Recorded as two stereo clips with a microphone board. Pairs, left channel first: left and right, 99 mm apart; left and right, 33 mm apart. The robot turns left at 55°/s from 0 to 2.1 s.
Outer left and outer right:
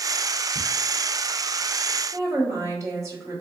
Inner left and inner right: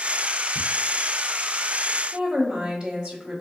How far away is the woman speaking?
About 1.5 m.